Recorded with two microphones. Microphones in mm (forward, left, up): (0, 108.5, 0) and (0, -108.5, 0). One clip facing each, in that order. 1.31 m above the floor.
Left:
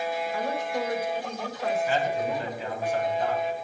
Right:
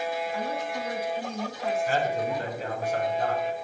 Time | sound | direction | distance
0.3 | a woman speaking | 60° left (ahead or behind) | 3 m
1.9 | a man speaking | 45° right (ahead or behind) | 5.5 m